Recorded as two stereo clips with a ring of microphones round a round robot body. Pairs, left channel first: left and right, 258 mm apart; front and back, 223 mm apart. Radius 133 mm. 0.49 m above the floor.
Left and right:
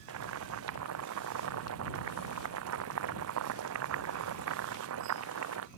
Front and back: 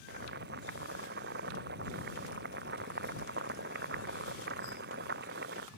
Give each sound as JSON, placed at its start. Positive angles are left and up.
{"t": 0.1, "sound": "boiling", "azimuth_deg": -125}